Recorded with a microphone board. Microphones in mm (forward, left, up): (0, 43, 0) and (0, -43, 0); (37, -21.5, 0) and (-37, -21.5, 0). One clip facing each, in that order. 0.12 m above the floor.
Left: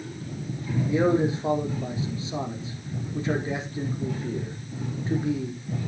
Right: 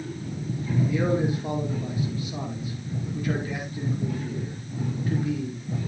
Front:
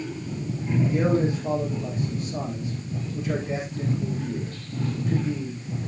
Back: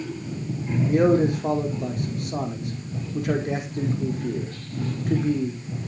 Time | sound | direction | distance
0.9 | a man speaking | 155° left | 5 m